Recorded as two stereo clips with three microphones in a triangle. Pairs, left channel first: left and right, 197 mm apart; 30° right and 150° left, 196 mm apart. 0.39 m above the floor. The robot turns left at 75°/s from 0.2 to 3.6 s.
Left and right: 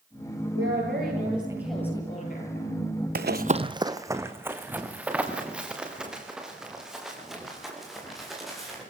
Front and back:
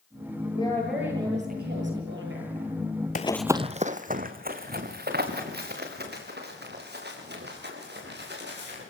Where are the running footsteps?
70° right, 0.6 m; by 8.8 s straight behind, 7.5 m.